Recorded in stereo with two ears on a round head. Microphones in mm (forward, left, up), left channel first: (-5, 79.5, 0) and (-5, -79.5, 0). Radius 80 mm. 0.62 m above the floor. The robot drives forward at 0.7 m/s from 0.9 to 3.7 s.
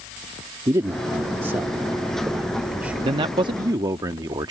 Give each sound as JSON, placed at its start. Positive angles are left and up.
{"t": 0.7, "sound": "a man speaking", "side_deg": -15}
{"t": 3.0, "sound": "a man speaking", "side_deg": -30}